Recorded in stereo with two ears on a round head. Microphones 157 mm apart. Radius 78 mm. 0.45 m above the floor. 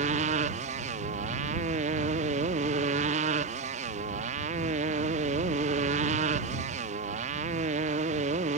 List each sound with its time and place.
0.0 s a motorcycle: 40° right (ahead or behind)